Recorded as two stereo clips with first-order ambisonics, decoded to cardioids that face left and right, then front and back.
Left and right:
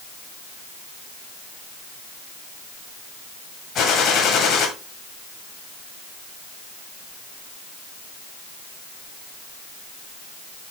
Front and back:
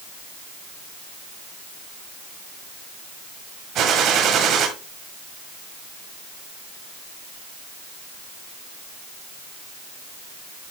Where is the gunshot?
135° left, 1.6 m.